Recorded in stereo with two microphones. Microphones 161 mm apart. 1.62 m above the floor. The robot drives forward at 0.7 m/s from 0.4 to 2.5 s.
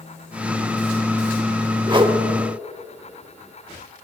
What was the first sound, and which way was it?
A whoosh, 30° right (ahead or behind).